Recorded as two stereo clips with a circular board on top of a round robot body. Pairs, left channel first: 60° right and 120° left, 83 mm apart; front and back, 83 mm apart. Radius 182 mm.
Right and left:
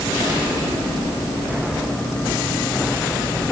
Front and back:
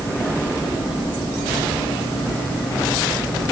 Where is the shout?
I don't hear a shout.